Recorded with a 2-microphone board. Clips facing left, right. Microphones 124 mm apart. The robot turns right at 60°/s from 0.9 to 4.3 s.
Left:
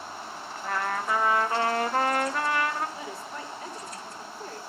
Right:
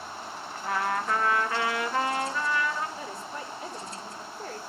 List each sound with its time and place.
0.6 s a trumpet: 5° right, 1.1 m; by 2.9 s 115° left, 1.1 m
3.0 s a woman speaking: 165° left, 3.5 m; by 4.6 s 115° right, 3.5 m